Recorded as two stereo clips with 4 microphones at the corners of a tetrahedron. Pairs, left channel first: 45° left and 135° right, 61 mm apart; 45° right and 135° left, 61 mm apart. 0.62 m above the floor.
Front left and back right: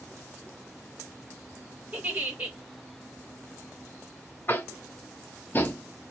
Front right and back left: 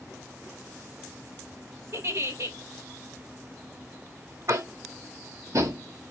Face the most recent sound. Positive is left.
turn(degrees=100)